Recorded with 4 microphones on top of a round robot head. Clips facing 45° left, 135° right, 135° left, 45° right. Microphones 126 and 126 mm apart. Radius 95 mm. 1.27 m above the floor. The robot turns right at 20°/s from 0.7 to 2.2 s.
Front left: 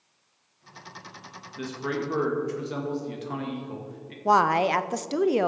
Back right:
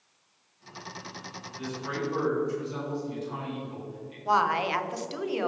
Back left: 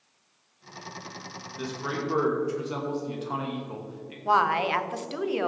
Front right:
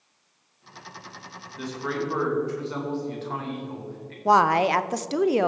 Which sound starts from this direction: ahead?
A woman speaking, at 4.2 s.